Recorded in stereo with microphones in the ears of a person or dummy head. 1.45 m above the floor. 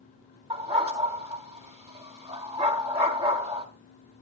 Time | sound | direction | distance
0.5 | a dog barking | 25° right (ahead or behind) | 2 m